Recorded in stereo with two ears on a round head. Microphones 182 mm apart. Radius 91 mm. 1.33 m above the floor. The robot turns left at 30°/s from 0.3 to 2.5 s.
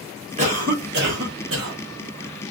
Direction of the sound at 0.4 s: 35° right.